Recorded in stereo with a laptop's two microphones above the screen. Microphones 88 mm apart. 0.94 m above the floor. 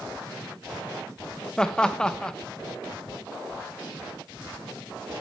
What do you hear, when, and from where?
1.6 s laughter: 10° left (ahead or behind), 0.8 m